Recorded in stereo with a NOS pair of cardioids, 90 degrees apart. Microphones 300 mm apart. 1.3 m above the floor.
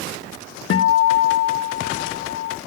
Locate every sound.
0.7 s a guitar: 45° left, 0.6 m